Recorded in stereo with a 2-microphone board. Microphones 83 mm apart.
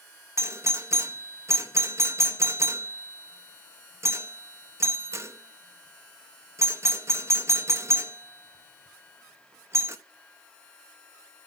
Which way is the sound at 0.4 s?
35° right (ahead or behind).